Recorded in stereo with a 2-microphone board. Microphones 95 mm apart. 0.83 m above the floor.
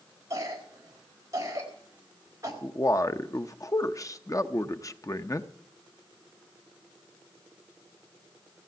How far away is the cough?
About 4 m.